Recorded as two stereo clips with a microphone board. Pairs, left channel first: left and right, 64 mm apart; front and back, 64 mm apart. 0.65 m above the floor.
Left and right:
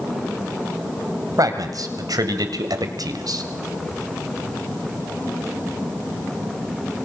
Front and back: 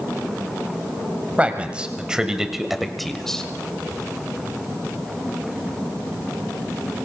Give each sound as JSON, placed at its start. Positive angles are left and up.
{"t": 1.4, "sound": "a man speaking", "azimuth_deg": -110, "distance_m": 3.0}